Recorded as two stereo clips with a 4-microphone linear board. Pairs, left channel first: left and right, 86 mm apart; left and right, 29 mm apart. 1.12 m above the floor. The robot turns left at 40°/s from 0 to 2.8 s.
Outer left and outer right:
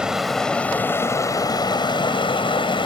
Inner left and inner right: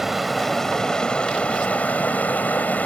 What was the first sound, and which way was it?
Running water, 170° right.